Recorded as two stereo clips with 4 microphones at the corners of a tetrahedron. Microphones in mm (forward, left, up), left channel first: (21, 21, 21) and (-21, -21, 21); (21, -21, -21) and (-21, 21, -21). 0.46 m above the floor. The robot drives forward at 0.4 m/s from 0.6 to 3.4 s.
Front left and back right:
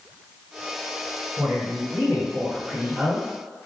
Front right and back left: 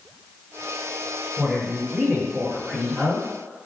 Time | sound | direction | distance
1.4 | a woman speaking | 135° right | 1.7 m